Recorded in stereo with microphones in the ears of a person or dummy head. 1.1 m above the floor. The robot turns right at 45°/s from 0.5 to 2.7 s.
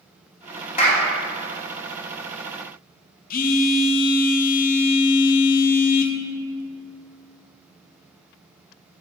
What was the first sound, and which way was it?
A clap, 50° left (ahead or behind).